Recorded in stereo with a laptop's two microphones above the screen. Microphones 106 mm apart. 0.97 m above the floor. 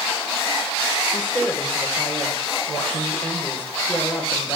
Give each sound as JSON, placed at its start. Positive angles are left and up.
{"t": 1.1, "sound": "a woman speaking", "side_deg": 15, "distance_m": 3.0}